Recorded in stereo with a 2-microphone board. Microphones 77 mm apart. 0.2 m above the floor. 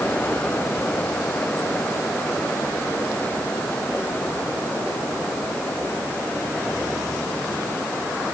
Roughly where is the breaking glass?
I don't hear breaking glass.